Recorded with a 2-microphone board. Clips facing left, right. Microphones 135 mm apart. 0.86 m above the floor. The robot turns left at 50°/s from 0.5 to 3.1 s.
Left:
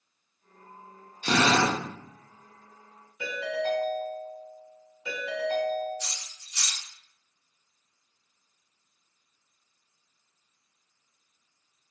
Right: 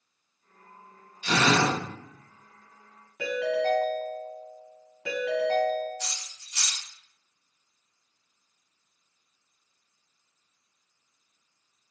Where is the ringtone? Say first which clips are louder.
Right 4 dB; 80° right, 1.8 m.